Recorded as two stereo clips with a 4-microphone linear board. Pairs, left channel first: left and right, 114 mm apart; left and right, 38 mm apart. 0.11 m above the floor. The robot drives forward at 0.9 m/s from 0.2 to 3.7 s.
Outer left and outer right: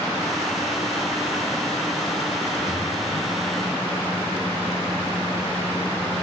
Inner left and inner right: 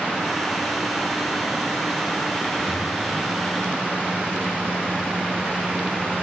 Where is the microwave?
30° left (ahead or behind), 5.5 m; by 6.2 s 25° left (ahead or behind), 6.5 m.